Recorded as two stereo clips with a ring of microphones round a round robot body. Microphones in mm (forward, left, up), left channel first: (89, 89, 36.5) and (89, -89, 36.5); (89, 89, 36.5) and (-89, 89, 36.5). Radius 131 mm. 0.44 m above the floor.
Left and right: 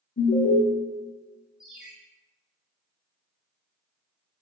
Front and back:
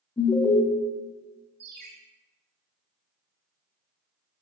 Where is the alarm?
60° left, 1.1 m.